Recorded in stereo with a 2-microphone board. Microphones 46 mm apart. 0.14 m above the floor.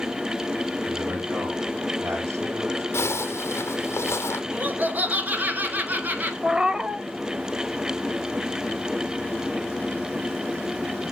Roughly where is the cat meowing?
Centre.